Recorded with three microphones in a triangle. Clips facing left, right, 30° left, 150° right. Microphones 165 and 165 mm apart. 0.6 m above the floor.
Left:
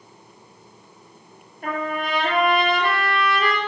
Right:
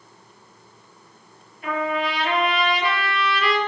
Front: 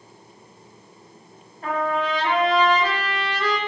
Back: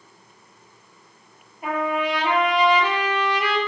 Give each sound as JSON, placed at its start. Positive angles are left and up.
{"t": 1.6, "sound": "a trumpet", "azimuth_deg": 130, "distance_m": 5.0}